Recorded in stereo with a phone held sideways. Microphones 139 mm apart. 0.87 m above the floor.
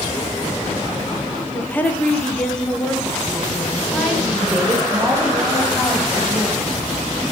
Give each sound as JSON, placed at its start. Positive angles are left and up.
{"t": 1.5, "sound": "a woman speaking", "side_deg": 15, "distance_m": 0.9}